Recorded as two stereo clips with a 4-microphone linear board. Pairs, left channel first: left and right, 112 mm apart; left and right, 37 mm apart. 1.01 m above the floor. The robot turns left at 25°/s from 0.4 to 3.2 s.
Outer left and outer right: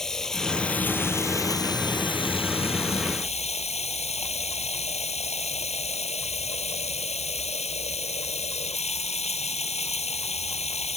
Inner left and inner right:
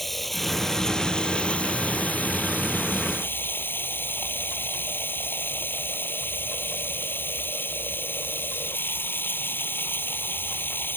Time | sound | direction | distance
0.0 | running water | 175° left | ?